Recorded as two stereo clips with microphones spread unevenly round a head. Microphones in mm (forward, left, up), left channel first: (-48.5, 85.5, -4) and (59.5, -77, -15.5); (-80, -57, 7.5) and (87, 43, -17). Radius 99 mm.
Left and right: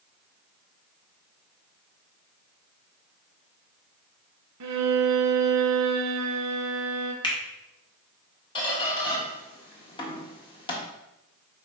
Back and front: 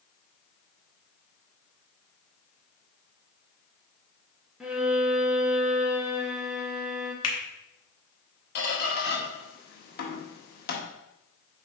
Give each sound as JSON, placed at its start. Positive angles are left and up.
{"t": 4.6, "sound": "a violin", "azimuth_deg": -55, "distance_m": 1.2}
{"t": 7.2, "sound": "a finger snap", "azimuth_deg": -165, "distance_m": 1.7}
{"t": 8.6, "sound": "a squeak", "azimuth_deg": -175, "distance_m": 1.6}